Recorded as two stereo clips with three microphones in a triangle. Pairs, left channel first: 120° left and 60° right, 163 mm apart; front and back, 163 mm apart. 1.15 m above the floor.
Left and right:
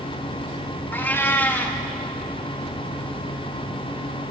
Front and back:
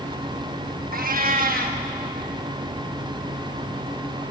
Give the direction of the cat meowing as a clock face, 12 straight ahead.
5 o'clock.